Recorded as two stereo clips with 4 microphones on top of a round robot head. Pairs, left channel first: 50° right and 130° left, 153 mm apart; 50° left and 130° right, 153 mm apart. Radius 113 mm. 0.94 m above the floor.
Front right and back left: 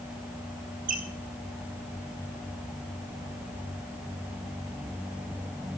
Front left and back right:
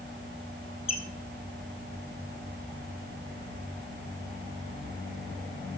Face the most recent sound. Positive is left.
turn(degrees=100)